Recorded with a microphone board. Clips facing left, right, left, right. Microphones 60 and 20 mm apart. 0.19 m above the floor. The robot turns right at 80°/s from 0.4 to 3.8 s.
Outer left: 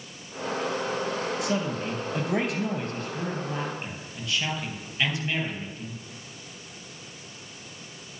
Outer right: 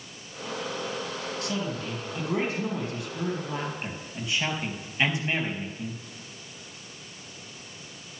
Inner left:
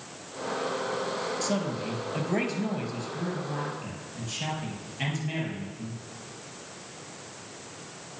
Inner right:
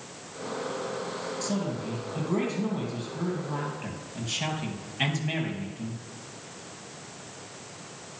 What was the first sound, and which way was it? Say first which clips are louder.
A man speaking: outer left 3 dB, inner left 1 dB; 10° left.